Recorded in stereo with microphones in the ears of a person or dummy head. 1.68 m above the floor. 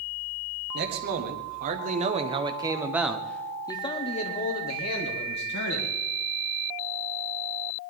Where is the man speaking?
55° right (ahead or behind), 2.5 m; by 6.0 s 65° left (ahead or behind), 2.5 m.